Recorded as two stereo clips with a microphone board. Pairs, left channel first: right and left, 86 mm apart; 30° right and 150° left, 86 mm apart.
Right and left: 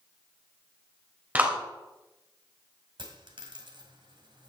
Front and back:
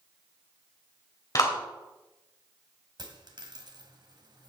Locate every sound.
1.4 s a clap: 20° left, 3 m
3.0 s a dropped coin: 115° left, 2 m